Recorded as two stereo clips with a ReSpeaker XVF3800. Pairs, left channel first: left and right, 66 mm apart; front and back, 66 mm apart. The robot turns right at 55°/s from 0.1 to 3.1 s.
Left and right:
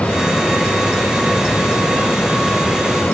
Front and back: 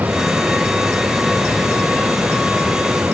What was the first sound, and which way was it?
Only background noise.